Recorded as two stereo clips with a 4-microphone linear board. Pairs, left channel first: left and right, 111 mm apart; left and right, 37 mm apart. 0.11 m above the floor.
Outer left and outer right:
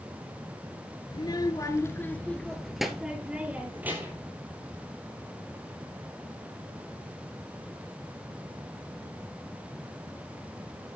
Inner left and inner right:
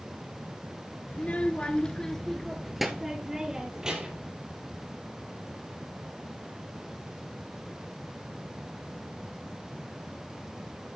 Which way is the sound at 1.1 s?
40° left (ahead or behind).